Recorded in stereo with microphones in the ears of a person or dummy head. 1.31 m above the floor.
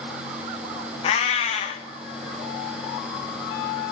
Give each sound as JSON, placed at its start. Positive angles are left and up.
{"t": 1.0, "sound": "a cat meowing", "side_deg": 45, "distance_m": 1.2}